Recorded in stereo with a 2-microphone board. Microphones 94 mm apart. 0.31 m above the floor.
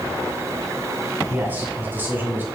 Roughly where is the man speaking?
Right.